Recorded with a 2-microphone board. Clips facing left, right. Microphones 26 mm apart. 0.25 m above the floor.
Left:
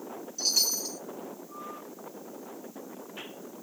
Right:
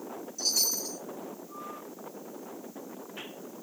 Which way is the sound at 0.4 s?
35° left (ahead or behind).